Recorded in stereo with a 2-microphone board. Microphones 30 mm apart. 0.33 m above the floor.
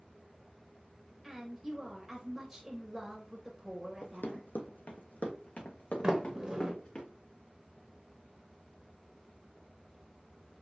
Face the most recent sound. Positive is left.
turn(degrees=-25)  # may be behind; listen again after turning